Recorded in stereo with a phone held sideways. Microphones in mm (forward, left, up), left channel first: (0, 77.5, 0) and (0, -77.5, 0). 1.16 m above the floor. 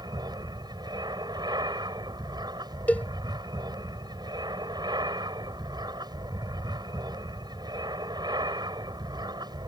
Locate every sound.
0.0 s an aircraft: 25° right (ahead or behind)
2.9 s a cowbell: 10° left (ahead or behind)